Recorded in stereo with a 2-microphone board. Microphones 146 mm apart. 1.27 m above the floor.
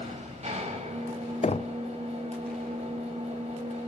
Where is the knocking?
45° left (ahead or behind), 0.5 m.